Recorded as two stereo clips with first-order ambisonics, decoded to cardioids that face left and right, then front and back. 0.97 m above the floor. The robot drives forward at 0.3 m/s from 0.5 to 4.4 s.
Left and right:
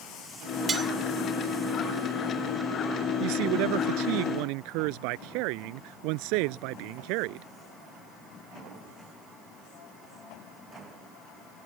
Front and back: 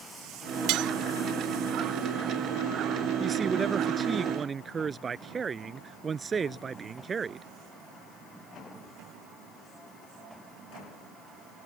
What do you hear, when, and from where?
0.7 s cutlery clinking: 155° right; by 0.9 s 160° right
3.2 s a man speaking: 105° right; by 7.5 s 110° right